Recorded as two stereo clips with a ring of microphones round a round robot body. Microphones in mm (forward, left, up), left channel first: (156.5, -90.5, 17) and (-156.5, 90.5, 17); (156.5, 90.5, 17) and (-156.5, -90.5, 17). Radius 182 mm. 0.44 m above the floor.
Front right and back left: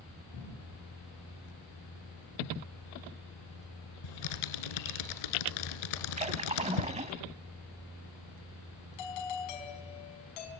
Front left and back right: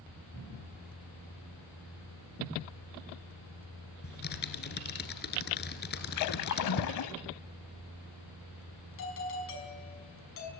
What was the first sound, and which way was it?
Typing on a keyboard, 35° right.